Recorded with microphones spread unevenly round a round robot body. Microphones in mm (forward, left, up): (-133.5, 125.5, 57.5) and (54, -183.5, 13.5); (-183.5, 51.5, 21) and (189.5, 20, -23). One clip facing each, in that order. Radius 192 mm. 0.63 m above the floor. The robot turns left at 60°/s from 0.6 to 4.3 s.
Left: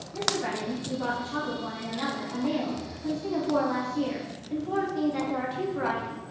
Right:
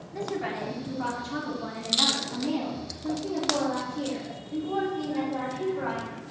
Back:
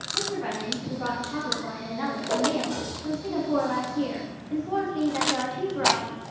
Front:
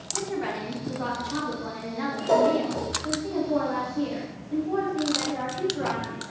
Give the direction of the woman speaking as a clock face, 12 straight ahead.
12 o'clock.